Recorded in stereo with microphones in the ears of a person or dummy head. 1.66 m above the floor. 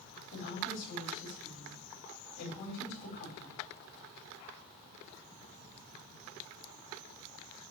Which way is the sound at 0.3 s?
50° left (ahead or behind).